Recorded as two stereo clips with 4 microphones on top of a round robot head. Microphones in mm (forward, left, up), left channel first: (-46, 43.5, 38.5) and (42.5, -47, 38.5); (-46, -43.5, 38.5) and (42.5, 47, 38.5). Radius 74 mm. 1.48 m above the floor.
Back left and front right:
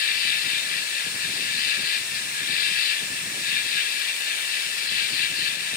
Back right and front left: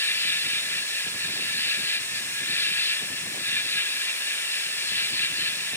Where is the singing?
I don't hear singing.